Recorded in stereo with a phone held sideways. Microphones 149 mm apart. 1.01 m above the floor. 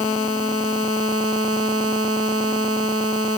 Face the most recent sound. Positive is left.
No sound to turn to.